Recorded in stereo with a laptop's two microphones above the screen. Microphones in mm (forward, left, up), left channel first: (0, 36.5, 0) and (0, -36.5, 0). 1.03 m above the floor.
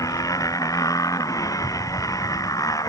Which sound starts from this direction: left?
A motorcycle, at 0.0 s.